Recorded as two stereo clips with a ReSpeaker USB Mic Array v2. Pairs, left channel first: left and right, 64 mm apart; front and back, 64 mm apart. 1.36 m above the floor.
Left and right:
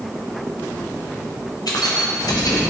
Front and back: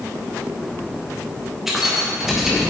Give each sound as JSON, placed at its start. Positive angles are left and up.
{"t": 1.7, "sound": "keys jangling", "azimuth_deg": 95, "distance_m": 1.1}